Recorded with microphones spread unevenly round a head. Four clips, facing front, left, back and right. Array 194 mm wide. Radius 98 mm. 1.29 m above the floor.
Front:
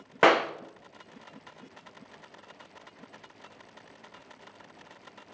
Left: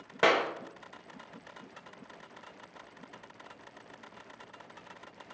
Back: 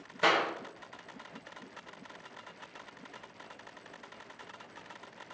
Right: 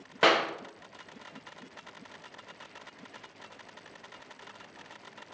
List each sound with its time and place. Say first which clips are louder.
0.2 s a clap: right 1 dB, front 7 dB; 5° right, 0.6 m